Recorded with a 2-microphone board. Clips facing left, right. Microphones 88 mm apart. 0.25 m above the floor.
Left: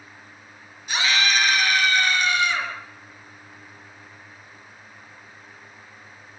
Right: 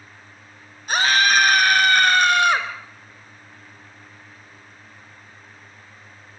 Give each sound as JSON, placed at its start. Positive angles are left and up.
{"t": 0.9, "sound": "a scream", "side_deg": -45, "distance_m": 3.5}